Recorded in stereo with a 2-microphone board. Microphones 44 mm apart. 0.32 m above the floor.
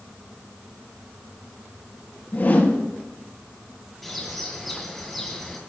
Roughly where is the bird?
Centre.